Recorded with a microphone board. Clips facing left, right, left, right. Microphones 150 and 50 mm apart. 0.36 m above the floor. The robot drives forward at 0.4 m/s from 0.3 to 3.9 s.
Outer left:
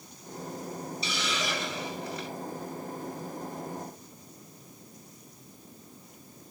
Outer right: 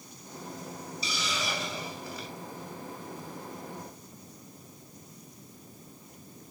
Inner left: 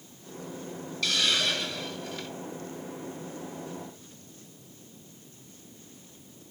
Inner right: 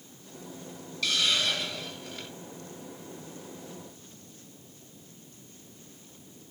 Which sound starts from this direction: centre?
A hiss, at 1.0 s.